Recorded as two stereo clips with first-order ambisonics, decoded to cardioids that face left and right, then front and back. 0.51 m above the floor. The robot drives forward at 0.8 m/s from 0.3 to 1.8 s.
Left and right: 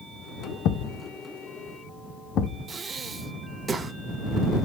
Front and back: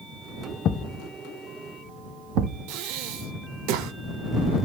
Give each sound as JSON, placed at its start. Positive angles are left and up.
{"t": 0.7, "sound": "a thud", "azimuth_deg": 50, "distance_m": 0.6}
{"t": 2.7, "sound": "breathing", "azimuth_deg": -165, "distance_m": 0.5}